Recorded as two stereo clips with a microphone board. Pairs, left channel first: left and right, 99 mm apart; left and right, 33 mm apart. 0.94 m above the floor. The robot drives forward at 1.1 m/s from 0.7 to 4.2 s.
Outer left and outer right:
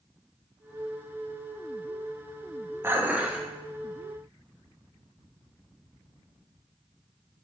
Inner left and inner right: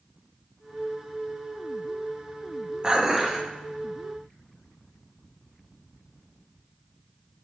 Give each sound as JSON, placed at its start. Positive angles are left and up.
{"t": 2.8, "sound": "dishes clattering", "side_deg": -25, "distance_m": 0.7}